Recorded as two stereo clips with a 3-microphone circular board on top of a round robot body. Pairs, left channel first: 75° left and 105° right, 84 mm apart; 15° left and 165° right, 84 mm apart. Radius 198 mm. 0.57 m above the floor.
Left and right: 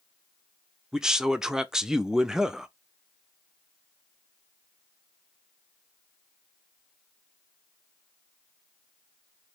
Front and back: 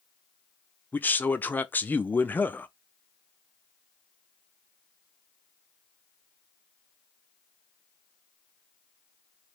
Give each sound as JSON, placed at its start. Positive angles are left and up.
{"t": 0.9, "sound": "a man speaking", "azimuth_deg": -30, "distance_m": 0.7}